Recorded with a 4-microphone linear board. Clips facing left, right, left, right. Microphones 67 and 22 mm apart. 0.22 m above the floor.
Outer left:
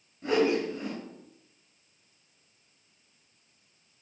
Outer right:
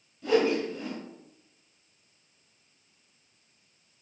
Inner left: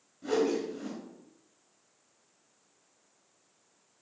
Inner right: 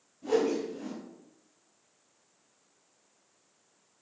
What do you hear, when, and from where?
0.2 s a whoosh: 30° left (ahead or behind), 3.5 m